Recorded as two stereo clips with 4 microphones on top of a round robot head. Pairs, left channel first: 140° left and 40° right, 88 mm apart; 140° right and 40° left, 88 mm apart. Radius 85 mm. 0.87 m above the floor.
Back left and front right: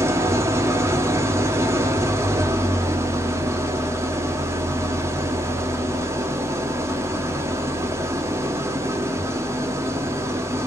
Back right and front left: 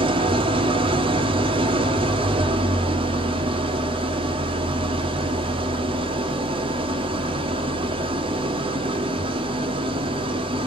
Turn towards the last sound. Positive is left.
turn(degrees=20)